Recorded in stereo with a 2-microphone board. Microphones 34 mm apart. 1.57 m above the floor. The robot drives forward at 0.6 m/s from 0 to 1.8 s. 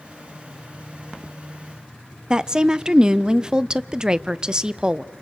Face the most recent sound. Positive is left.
turn(degrees=-20)  # may be behind; listen again after turning